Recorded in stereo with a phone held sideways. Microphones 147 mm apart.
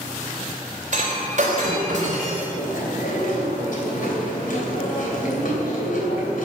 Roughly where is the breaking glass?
Right.